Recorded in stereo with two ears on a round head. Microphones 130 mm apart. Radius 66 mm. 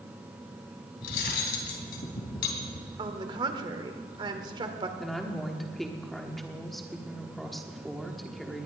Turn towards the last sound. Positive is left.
turn(degrees=0)  # may be behind; listen again after turning